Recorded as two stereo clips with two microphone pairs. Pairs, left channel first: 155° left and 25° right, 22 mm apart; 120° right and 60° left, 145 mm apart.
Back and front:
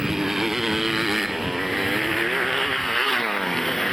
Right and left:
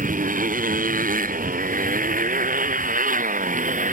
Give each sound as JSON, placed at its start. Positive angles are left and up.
{"t": 0.0, "sound": "a motorcycle", "azimuth_deg": 50}